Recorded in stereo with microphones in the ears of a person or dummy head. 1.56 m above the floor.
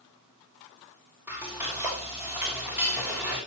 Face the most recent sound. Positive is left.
turn(degrees=-5)  # may be behind; listen again after turning